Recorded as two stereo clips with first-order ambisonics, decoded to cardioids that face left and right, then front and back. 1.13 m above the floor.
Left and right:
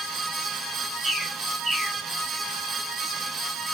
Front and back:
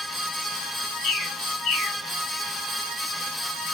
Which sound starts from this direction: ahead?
A bird, at 1.0 s.